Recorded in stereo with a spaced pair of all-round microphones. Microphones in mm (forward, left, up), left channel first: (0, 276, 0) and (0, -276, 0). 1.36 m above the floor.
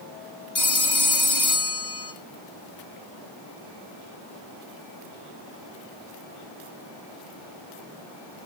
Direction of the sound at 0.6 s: 60° left (ahead or behind).